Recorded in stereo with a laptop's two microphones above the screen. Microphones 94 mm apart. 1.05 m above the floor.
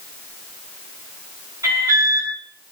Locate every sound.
1.6 s an alarm: 40° right (ahead or behind), 7 m